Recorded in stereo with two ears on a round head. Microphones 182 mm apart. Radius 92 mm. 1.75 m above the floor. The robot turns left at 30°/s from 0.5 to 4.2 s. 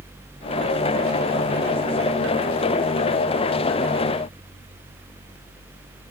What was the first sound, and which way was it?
Only background noise.